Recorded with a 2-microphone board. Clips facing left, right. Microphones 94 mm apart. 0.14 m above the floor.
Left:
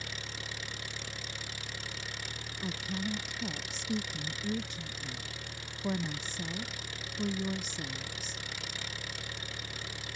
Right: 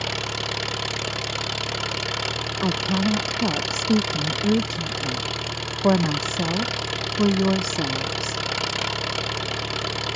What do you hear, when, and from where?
0.0 s an engine running: 75° right (ahead or behind)
2.6 s a woman speaking: 70° right (ahead or behind)